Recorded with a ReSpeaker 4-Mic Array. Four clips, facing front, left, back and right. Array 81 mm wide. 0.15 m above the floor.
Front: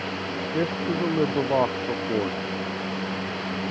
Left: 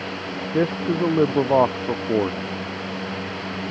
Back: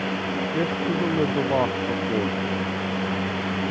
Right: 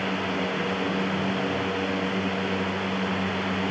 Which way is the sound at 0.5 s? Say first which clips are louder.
Left 5 dB, even; 85° left.